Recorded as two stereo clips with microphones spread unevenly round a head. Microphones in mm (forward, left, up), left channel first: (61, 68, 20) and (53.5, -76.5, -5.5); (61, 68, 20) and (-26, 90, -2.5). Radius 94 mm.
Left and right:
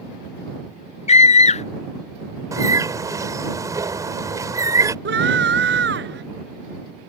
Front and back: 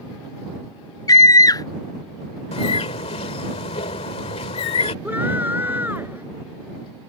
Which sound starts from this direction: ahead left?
A scream, at 1.1 s.